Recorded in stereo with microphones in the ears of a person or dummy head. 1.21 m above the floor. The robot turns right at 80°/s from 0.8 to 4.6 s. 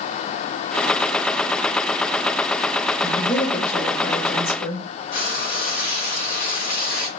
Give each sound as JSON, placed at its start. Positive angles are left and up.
{"t": 3.0, "sound": "a woman speaking", "azimuth_deg": 15, "distance_m": 2.0}
{"t": 5.1, "sound": "frying", "side_deg": 40, "distance_m": 3.0}